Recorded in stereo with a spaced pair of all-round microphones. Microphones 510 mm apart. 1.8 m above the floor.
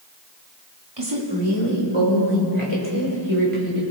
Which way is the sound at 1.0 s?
55° right (ahead or behind).